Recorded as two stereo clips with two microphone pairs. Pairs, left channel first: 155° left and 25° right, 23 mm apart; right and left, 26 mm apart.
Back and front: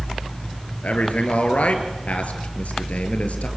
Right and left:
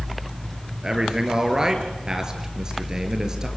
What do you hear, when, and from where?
0.8 s a man speaking: 150° left, 5 m